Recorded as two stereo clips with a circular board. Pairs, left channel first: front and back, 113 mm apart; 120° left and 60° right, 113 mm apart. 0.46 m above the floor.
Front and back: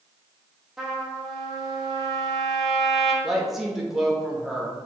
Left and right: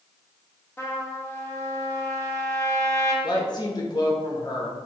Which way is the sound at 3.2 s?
95° left.